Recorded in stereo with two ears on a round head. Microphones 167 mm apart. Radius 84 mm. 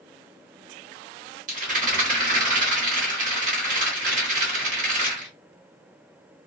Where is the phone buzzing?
No phone buzzing in this recording.